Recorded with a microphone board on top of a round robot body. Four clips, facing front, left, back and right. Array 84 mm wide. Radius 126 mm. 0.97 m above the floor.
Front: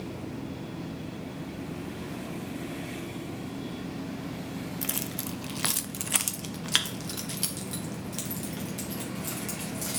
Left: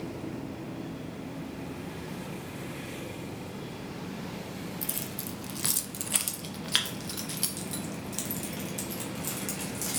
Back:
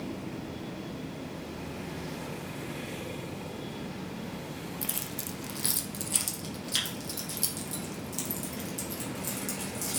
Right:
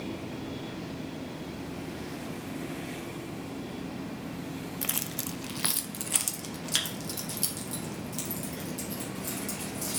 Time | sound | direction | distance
4.8 | keys jangling | 70° right | 0.6 m